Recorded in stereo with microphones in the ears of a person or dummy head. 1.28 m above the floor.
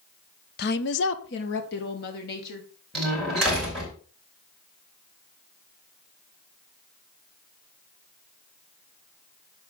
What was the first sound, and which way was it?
A woman speaking, 40° left (ahead or behind).